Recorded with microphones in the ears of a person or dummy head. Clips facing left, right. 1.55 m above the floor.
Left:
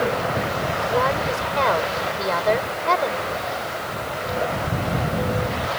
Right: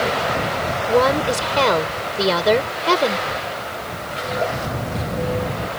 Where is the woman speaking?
60° right (ahead or behind).